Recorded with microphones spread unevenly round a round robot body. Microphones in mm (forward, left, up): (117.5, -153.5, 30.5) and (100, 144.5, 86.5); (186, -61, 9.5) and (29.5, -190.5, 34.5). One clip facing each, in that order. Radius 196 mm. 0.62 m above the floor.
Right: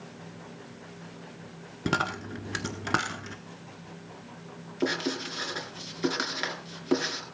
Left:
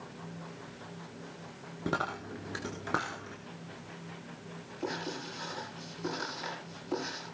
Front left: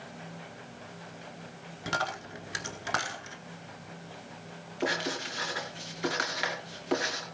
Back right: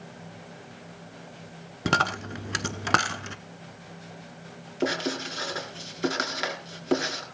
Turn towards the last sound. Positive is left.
turn(degrees=-100)